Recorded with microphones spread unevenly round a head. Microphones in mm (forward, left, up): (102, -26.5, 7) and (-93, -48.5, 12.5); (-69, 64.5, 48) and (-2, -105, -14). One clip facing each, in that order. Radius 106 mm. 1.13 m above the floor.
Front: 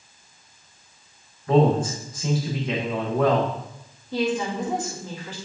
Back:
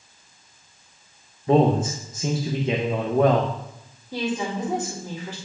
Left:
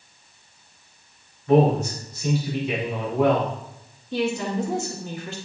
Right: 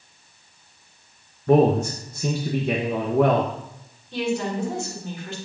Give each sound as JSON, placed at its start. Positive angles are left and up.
{"t": 1.5, "sound": "a man speaking", "azimuth_deg": -105, "distance_m": 0.9}
{"t": 4.1, "sound": "a woman speaking", "azimuth_deg": 105, "distance_m": 1.8}